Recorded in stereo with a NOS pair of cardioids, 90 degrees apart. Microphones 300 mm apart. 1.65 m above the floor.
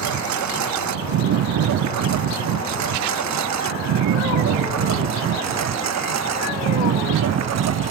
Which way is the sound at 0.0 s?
70° right.